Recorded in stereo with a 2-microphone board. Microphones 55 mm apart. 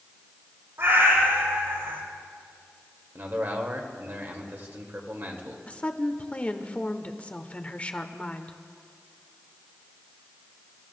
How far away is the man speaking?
About 1.7 m.